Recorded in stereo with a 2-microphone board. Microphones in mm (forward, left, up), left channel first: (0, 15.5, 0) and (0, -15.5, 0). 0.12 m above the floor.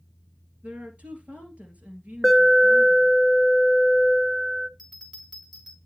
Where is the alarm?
5° right (ahead or behind), 0.9 m.